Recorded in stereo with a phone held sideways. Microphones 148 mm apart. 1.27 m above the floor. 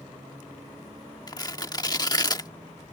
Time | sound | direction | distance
1.3 | tearing paper | 30° left (ahead or behind) | ?